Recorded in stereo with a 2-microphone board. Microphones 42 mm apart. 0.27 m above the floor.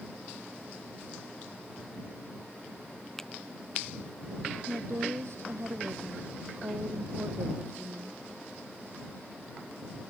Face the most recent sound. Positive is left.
turn(degrees=-70)  # may be behind; listen again after turning